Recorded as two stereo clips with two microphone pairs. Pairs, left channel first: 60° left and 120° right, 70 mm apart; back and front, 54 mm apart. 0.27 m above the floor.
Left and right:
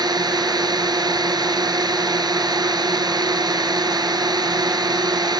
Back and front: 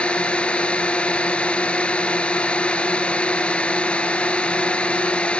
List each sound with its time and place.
0.0 s a drone: 110° right